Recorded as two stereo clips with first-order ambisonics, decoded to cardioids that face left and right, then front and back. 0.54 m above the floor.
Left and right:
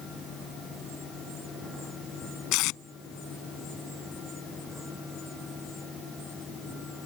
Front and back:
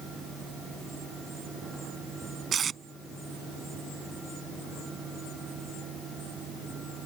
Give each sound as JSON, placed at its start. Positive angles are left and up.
{"t": 2.5, "sound": "tape being pulled", "azimuth_deg": 115}